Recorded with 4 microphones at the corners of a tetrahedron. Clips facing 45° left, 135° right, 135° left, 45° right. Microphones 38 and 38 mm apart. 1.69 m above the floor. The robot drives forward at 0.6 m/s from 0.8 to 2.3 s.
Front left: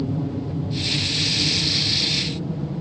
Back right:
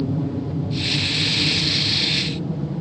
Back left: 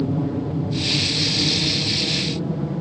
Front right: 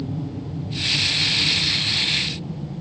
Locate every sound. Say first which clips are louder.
0.0 s an aircraft: back right 2 dB, back left 7 dB; 145° left; by 2.8 s 140° left